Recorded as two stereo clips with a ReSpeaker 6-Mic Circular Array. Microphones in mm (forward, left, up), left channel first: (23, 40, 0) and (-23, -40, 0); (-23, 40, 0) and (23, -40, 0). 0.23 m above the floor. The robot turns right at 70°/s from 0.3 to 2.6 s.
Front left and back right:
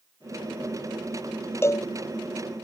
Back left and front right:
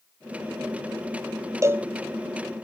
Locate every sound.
1.6 s a cowbell: straight ahead; by 1.9 s 15° left